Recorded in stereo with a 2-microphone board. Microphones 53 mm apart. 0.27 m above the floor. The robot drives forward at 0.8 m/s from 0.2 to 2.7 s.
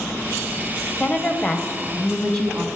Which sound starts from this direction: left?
A woman speaking, at 1.0 s.